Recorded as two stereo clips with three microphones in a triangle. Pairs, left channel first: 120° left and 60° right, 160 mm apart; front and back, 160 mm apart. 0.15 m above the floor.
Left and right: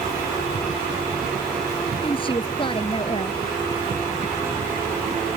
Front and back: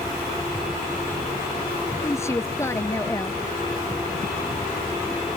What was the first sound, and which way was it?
A woman speaking, 70° left.